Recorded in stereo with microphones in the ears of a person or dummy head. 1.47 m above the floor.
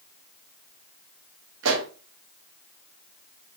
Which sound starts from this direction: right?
A pop, at 1.6 s.